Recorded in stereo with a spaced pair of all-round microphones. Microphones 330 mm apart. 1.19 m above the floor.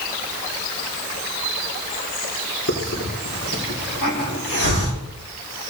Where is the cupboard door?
No cupboard door in this recording.